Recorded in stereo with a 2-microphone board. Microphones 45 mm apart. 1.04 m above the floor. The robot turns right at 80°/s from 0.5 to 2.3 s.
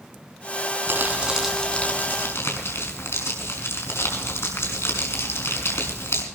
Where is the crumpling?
50° right, 5.5 m; by 6.2 s 65° left, 5.5 m.